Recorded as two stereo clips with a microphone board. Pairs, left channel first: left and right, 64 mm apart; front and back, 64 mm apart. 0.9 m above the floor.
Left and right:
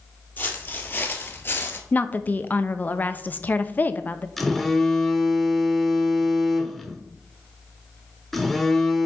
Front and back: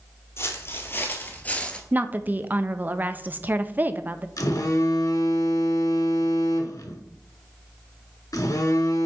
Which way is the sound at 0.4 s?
35° left.